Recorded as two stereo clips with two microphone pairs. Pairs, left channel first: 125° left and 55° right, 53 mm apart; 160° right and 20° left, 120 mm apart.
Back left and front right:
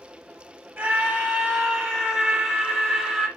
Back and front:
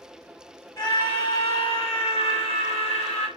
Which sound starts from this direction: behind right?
A scream, at 0.8 s.